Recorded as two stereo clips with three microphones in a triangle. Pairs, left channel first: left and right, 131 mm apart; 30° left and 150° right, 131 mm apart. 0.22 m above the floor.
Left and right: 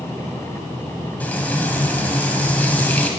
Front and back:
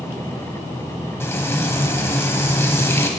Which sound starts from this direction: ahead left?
Frying, at 1.2 s.